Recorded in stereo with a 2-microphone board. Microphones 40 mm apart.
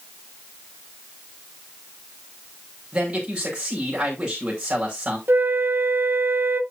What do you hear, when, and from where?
2.9 s a man speaking: 30° right (ahead or behind), 5 m
5.3 s a flute: 65° right (ahead or behind), 0.9 m